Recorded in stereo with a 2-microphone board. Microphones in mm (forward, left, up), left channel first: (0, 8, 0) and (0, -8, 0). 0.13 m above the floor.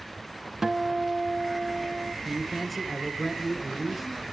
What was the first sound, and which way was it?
A guitar, 25° right (ahead or behind).